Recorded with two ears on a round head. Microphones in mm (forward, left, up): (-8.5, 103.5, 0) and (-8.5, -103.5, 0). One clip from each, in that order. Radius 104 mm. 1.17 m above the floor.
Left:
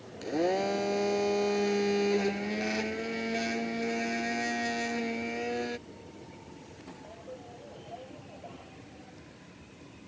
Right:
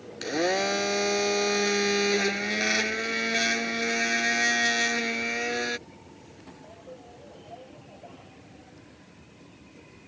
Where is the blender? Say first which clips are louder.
Right 3 dB; 55° right (ahead or behind).